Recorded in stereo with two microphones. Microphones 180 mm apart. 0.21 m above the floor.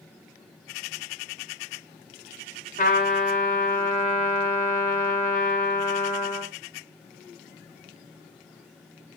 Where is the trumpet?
50° left (ahead or behind), 2.5 m.